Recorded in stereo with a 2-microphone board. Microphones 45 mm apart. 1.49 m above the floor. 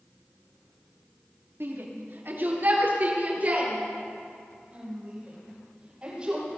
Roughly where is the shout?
Right.